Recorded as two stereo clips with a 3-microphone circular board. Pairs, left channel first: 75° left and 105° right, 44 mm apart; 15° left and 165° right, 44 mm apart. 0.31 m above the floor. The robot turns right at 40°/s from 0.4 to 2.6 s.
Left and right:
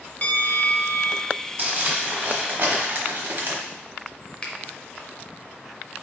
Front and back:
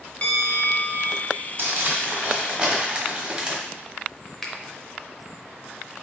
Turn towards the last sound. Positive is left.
turn(degrees=80)